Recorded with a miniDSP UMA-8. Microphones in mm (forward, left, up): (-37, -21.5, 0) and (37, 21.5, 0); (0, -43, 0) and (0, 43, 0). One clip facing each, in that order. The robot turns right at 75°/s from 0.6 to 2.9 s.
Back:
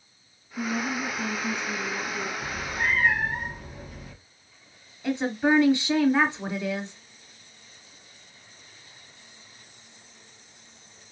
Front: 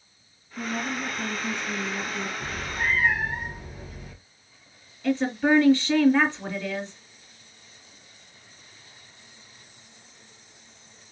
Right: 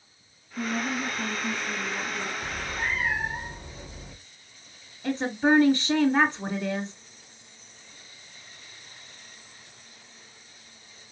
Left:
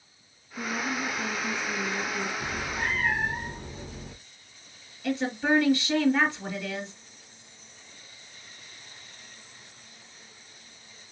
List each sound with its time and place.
0.6 s a woman speaking: 80° right, 2 m; by 2.3 s 50° left, 2 m
2.4 s a cat meowing: 85° left, 1.7 m; by 4.1 s 120° left, 1.7 m
5.0 s a woman speaking: 95° right, 1.5 m